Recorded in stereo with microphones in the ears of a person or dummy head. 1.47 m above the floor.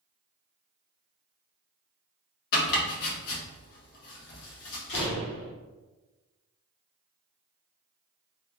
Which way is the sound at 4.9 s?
70° left (ahead or behind).